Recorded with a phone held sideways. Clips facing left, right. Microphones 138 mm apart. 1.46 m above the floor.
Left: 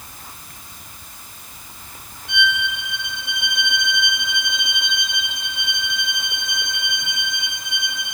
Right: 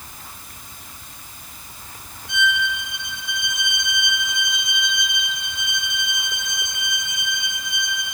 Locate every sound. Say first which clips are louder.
2.3 s a violin: even; 65° left (ahead or behind), 2.5 m